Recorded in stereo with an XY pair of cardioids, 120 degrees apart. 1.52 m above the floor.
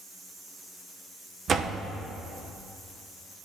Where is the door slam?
40° right, 0.8 m.